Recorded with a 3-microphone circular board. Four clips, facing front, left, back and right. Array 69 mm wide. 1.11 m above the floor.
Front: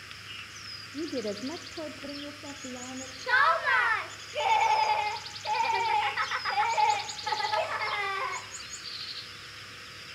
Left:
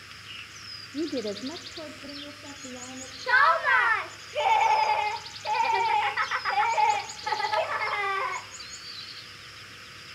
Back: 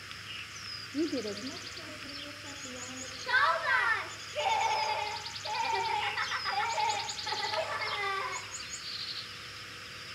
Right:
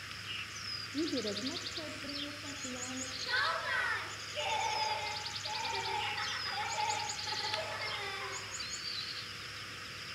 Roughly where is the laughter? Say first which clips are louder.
Left 14 dB, front 3 dB; left.